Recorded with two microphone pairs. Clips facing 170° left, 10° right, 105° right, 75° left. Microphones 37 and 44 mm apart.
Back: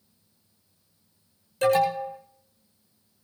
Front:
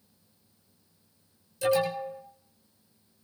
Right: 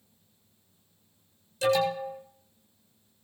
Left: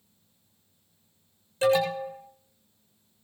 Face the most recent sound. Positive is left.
turn(degrees=130)